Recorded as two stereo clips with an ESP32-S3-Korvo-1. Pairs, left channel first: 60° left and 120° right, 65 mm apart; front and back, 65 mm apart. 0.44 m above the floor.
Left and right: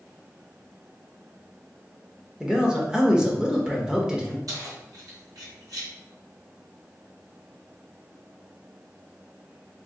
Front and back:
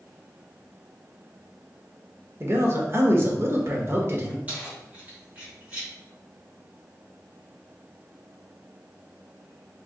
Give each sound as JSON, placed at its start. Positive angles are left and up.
{"t": 2.4, "sound": "a man speaking", "azimuth_deg": 165, "distance_m": 1.0}
{"t": 4.5, "sound": "keys jangling", "azimuth_deg": -115, "distance_m": 2.0}